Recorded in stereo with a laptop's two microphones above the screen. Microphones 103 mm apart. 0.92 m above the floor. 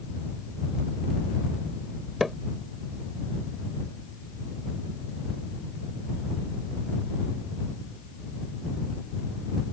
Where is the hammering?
Centre (ahead or behind).